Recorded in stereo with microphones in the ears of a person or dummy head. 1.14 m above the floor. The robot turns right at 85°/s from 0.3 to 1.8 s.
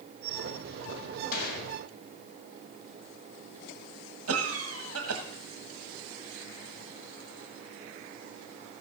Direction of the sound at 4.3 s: 75° right (ahead or behind).